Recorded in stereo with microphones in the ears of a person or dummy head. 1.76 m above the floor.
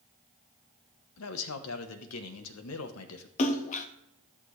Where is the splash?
40° left (ahead or behind), 0.8 m.